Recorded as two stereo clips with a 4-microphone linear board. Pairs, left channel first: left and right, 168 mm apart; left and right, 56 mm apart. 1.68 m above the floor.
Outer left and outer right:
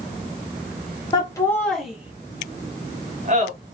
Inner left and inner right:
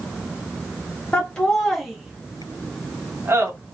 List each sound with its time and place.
1.1 s laughter: 25° left (ahead or behind), 0.9 m; by 3.5 s 50° right (ahead or behind), 1.3 m